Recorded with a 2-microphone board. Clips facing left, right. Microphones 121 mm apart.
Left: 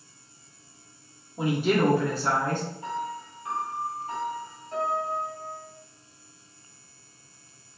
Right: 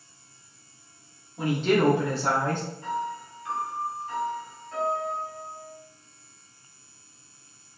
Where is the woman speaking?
25° left (ahead or behind), 0.7 m; by 2.6 s 50° right (ahead or behind), 0.9 m.